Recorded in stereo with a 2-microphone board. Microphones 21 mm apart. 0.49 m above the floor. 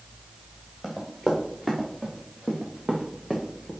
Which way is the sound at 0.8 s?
Centre (ahead or behind).